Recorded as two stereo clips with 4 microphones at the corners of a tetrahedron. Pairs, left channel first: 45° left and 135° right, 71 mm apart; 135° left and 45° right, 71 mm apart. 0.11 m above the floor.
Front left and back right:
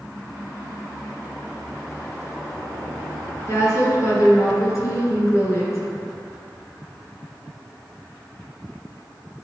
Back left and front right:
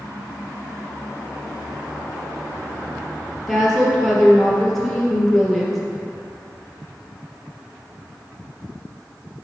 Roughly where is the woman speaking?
Ahead left.